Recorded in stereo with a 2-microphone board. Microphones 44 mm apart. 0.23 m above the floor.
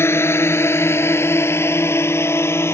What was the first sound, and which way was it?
A drone, 70° left (ahead or behind).